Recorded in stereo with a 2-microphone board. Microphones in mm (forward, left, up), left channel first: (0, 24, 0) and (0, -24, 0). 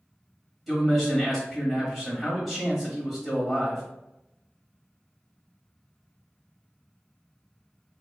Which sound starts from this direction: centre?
A man speaking, at 0.7 s.